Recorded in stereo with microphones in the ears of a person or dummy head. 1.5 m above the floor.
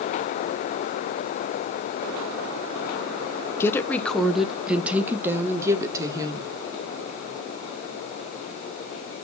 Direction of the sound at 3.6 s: 10° left (ahead or behind).